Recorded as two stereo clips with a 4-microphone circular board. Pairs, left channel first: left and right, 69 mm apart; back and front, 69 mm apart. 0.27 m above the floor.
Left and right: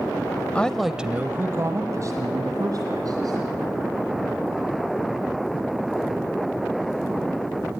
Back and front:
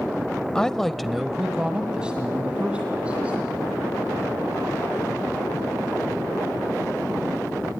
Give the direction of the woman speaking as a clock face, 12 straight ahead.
8 o'clock.